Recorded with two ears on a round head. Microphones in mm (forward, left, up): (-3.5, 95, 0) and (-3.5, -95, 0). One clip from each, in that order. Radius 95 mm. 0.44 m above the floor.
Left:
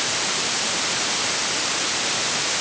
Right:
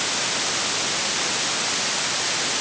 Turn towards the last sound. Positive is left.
No sound to turn to.